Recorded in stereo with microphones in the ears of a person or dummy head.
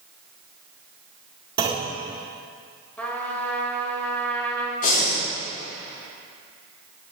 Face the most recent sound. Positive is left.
turn(degrees=40)  # may be behind; listen again after turning